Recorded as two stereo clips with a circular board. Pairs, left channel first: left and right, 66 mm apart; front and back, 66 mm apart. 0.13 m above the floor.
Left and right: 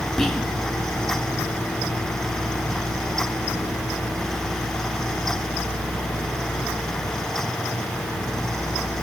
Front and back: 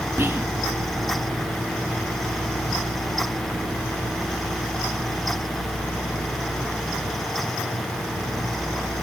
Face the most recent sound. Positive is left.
turn(degrees=170)